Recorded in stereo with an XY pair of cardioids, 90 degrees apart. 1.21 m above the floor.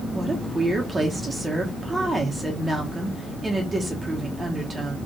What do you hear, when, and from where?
0.1 s a woman speaking: 30° right, 1.0 m